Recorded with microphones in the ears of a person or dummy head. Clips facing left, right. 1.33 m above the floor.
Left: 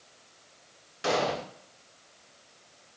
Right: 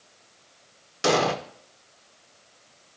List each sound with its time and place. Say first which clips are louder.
1.0 s an explosion: right 5 dB; 65° right (ahead or behind), 0.6 m